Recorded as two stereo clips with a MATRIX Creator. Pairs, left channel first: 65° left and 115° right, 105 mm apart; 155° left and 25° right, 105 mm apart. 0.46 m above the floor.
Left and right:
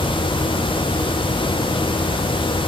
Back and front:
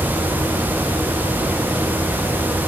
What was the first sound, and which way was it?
Only background noise.